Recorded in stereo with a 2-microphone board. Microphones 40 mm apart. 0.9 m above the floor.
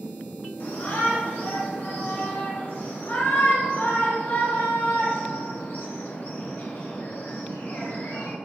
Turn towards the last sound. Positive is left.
turn(degrees=55)  # may be behind; listen again after turning